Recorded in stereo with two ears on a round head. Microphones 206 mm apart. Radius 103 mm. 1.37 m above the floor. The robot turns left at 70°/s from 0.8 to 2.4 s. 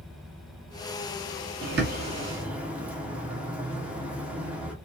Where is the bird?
120° right, 0.7 m; by 4.8 s 175° right, 0.7 m.